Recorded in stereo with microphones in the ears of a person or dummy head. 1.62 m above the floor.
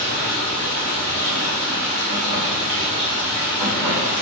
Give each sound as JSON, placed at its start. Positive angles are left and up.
{"t": 0.0, "sound": "running water", "side_deg": -25, "distance_m": 0.8}